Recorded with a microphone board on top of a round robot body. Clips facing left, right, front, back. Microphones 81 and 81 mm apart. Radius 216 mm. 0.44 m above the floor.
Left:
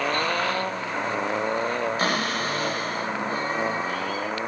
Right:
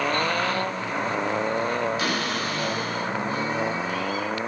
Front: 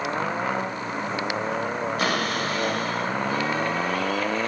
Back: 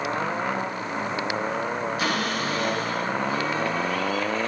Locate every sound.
2.0 s a cupboard door: 40° left, 2.5 m